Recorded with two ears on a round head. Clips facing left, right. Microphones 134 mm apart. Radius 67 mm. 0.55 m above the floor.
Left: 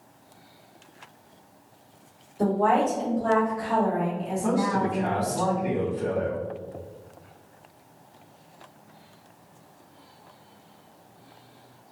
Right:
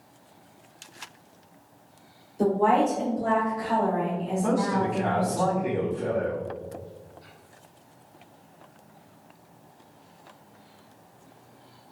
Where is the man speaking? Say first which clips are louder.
Left 1 dB; 5° right (ahead or behind), 1.4 m.